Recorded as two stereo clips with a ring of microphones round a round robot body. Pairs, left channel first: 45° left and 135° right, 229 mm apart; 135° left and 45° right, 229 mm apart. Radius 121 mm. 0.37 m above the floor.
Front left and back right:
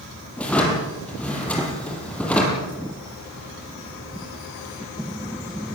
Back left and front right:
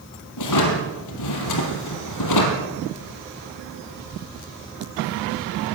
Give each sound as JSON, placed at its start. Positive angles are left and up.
{"t": 0.4, "sound": "a drawer", "azimuth_deg": 130, "distance_m": 4.0}